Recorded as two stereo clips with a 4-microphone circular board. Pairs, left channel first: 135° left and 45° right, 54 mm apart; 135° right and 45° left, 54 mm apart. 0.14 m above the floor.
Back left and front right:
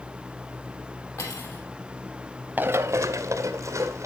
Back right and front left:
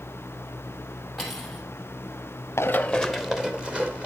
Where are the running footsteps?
100° right, 0.7 m; by 4.1 s 20° right, 2.5 m.